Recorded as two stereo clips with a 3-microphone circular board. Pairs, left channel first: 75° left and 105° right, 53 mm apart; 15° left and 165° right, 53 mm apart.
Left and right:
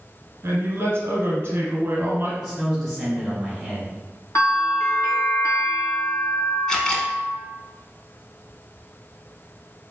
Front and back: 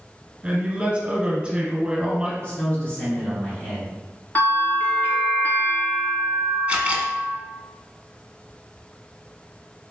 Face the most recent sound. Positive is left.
turn(degrees=145)